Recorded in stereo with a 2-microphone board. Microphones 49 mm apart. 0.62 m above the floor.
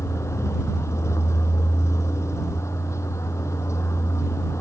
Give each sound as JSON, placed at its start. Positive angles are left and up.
{"t": 0.0, "sound": "a vehicle", "side_deg": 80}